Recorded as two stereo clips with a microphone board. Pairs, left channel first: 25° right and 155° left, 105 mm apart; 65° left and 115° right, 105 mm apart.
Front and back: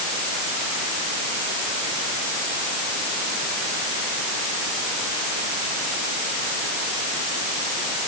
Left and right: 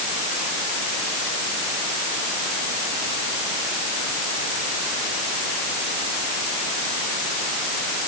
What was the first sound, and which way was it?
Only background noise.